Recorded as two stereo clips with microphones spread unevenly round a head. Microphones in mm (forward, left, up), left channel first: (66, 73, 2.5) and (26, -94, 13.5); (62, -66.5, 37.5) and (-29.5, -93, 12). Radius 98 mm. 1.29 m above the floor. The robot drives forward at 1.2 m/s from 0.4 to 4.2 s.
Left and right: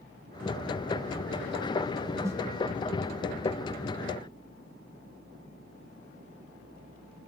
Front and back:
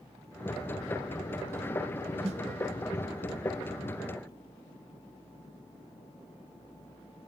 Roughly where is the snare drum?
Behind.